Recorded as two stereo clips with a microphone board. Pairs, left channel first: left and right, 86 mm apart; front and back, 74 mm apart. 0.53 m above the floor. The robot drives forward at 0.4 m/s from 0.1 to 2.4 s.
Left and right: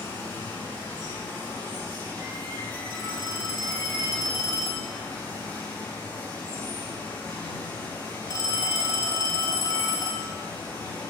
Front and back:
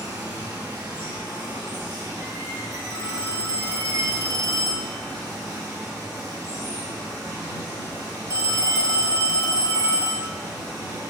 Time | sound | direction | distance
0.0 | running water | 155° left | 2 m
2.9 | a phone ringing | 135° left | 1.4 m